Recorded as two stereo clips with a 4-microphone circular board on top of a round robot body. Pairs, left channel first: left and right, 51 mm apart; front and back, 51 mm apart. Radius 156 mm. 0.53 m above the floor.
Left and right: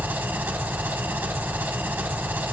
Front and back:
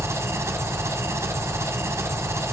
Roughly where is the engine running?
Behind right.